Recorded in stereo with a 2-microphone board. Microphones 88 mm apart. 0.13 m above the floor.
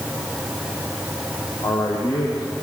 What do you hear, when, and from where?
1.6 s a man speaking: 45° left (ahead or behind), 4.5 m